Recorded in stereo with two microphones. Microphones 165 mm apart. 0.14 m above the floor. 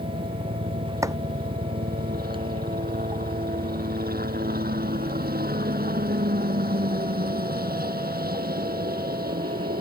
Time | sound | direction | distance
0.0 | a helicopter | 65° right (ahead or behind) | ?
1.0 | chopping | 20° right (ahead or behind) | ?